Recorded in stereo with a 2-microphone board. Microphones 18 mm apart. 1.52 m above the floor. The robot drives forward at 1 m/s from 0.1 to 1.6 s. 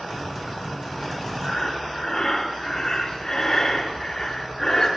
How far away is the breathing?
About 0.9 m.